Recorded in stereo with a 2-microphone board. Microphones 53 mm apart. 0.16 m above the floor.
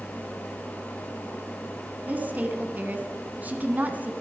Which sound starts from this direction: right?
A woman speaking, at 2.1 s.